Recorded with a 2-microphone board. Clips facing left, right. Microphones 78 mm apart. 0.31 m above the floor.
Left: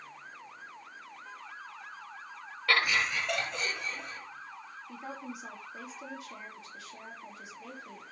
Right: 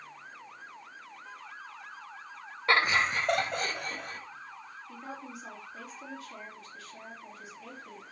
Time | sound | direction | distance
2.7 | laughter | 30° right (ahead or behind) | 1.2 m
4.9 | a woman speaking | 15° left (ahead or behind) | 5.5 m